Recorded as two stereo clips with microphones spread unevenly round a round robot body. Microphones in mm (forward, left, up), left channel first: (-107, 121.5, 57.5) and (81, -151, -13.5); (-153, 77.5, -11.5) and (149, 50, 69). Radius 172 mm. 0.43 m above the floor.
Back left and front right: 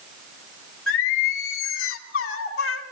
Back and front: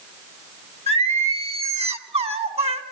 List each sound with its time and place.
0.9 s singing: 65° left, 3 m